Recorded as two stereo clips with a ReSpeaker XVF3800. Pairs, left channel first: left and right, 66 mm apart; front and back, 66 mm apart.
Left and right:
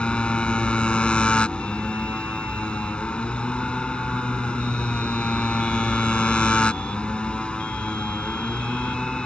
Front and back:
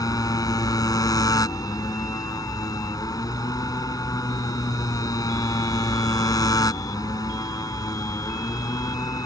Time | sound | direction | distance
0.0 | a motorcycle | 15° left | ?